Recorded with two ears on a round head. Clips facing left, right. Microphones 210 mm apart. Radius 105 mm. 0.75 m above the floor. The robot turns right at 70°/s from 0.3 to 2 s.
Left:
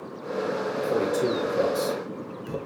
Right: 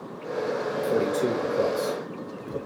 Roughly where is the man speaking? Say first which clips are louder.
Even; centre.